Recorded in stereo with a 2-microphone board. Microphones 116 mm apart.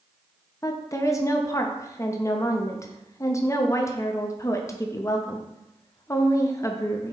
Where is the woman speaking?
25° left (ahead or behind), 0.5 m.